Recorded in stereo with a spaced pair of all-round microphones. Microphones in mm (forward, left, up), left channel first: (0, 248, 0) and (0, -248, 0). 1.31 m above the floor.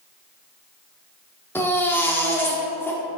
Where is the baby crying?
5° left (ahead or behind), 1.2 m.